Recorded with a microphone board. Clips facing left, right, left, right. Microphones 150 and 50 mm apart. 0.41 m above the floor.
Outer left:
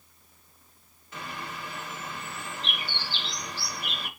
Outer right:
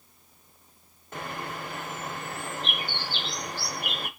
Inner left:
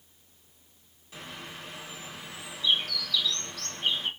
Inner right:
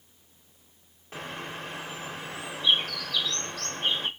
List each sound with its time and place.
1.1 s a bird: 50° right (ahead or behind), 0.6 m